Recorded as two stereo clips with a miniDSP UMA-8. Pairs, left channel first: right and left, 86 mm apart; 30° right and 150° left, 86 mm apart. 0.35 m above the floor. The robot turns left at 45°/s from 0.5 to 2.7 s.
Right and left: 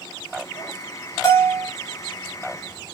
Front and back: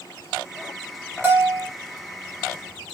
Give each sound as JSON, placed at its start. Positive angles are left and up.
{"t": 1.2, "sound": "a bell", "azimuth_deg": -145, "distance_m": 0.9}